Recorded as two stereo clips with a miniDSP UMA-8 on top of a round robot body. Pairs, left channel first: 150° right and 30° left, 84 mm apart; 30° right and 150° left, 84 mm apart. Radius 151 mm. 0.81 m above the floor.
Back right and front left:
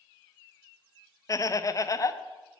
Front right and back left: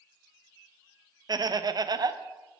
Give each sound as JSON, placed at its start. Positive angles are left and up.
{"t": 1.3, "sound": "laughter", "azimuth_deg": 170, "distance_m": 0.6}